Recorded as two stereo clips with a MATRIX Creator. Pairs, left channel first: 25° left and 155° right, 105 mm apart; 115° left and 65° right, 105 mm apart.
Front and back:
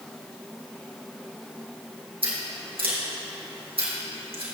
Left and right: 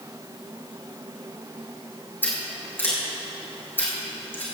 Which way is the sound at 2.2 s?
Straight behind.